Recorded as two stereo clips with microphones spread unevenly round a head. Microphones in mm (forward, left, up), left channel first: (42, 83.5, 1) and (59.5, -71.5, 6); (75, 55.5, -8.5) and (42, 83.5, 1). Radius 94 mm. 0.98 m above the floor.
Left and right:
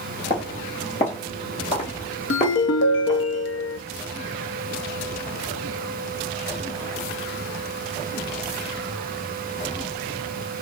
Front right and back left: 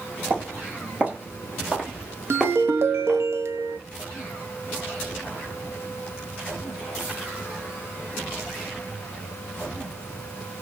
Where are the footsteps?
155° left, 1.5 m; by 3.3 s 55° left, 1.4 m.